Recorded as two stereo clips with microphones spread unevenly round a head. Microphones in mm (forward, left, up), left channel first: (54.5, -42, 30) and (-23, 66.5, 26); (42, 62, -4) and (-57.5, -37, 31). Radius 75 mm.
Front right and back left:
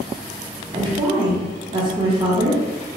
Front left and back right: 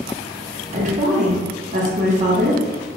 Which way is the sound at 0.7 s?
175° right.